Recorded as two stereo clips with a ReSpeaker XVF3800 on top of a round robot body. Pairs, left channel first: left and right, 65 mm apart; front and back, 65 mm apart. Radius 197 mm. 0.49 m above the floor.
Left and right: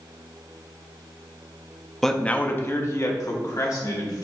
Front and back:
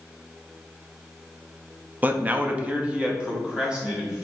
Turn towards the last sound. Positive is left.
turn(degrees=100)